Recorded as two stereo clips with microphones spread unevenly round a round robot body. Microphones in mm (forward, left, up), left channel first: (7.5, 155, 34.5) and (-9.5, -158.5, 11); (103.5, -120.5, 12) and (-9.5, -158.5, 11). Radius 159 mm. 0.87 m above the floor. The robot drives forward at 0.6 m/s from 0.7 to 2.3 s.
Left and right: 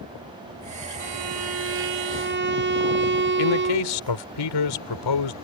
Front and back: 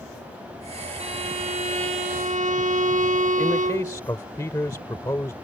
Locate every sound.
1.0 s a violin: 130° right; by 4.0 s 150° right
3.4 s a man speaking: 95° left